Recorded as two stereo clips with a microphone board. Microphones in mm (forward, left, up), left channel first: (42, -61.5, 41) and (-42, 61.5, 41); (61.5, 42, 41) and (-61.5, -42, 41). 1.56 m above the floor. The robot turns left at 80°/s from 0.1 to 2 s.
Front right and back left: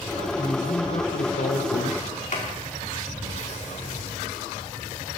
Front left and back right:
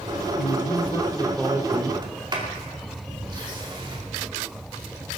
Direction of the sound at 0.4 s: 25° left.